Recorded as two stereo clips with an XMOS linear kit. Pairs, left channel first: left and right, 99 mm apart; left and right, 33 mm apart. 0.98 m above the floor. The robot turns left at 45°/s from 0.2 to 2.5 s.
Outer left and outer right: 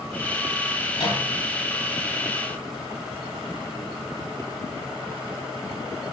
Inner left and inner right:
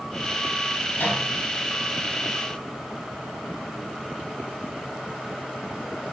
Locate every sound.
0.9 s a microwave: 90° left, 5.5 m; by 1.2 s 75° left (ahead or behind), 5.5 m